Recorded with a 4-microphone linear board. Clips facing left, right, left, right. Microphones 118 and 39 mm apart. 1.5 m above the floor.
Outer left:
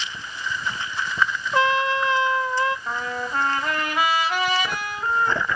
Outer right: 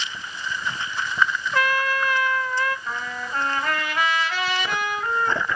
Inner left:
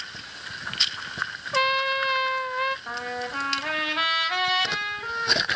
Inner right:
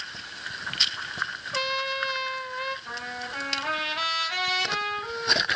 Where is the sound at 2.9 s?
15° left (ahead or behind), 4.5 m.